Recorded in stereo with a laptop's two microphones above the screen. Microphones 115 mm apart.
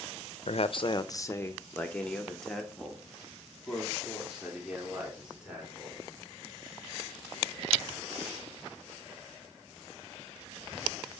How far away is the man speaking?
About 0.5 m.